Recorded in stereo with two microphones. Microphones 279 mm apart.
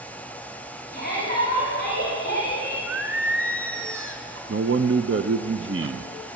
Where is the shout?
75° right (ahead or behind), 7.5 m; by 2.8 s 85° right, 6.5 m.